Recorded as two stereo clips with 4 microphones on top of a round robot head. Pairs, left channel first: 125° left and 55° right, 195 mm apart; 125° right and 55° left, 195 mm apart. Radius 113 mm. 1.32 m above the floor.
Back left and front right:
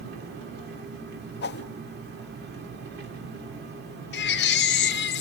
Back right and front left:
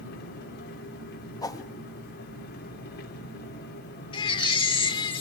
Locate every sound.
0.0 s an engine running: 90° right, 3 m
1.4 s a whoosh: 160° left, 0.7 m
4.1 s a baby crying: 165° left, 1.0 m